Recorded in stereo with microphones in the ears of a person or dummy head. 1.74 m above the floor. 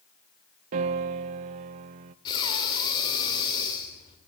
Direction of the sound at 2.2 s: 25° left (ahead or behind).